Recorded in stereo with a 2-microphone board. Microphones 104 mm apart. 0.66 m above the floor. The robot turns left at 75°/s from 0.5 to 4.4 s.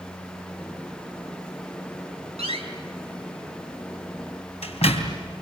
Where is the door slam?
75° right (ahead or behind), 3.5 m; by 5.2 s 70° left (ahead or behind), 3.5 m.